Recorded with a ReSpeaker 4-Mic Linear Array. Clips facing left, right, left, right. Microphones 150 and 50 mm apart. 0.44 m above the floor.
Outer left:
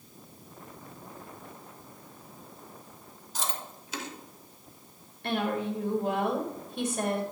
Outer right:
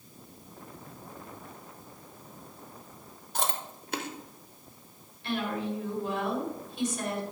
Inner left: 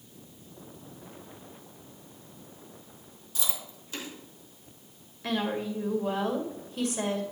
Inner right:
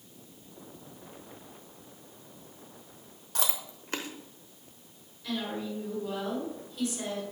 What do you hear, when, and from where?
3.4 s chewing: 55° right (ahead or behind), 1.0 m
5.2 s a woman speaking: 55° left (ahead or behind), 1.7 m